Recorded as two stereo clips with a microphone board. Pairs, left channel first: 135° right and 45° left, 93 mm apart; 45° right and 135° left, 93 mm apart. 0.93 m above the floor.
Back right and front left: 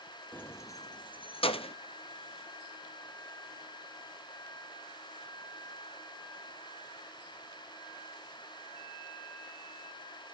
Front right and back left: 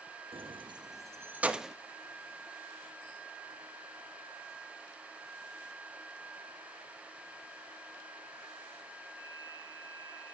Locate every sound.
0.3 s keys jangling: 150° left, 0.7 m; by 1.8 s 135° right, 0.7 m